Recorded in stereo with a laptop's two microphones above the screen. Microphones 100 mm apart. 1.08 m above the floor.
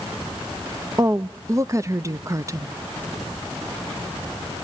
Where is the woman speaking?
30° right (ahead or behind), 0.5 m.